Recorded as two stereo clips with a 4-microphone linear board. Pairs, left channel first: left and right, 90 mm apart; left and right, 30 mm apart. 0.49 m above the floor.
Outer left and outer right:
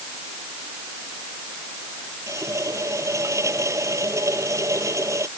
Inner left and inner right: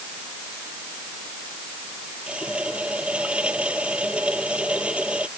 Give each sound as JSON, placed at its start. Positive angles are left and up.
{"t": 2.3, "sound": "a running tap", "side_deg": -35}